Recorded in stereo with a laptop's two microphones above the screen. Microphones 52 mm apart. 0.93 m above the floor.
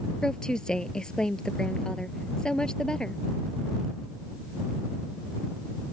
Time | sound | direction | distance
0.2 | a woman speaking | 15° left (ahead or behind) | ?